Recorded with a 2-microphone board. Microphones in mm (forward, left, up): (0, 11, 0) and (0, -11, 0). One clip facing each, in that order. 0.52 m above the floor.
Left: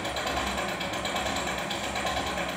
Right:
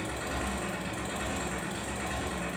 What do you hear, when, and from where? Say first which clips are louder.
0.0 s an engine running: left 5 dB; 55° left (ahead or behind), 9 m